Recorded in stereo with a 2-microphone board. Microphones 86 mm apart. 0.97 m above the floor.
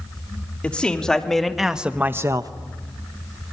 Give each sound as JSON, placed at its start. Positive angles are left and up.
{"t": 0.6, "sound": "a man speaking", "side_deg": 15, "distance_m": 3.0}